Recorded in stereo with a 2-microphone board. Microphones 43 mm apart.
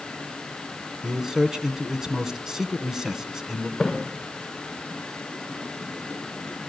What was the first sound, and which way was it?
A man speaking, 15° right (ahead or behind).